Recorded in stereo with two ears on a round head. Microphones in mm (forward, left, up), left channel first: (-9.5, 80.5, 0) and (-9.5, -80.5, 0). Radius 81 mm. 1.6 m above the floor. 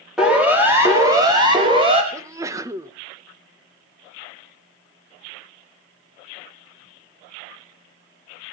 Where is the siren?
5° right (ahead or behind), 5 m; by 2.0 s 30° right (ahead or behind), 5.5 m.